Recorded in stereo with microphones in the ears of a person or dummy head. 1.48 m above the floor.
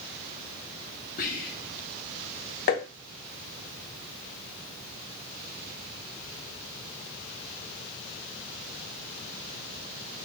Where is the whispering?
50° left (ahead or behind), 1.6 m.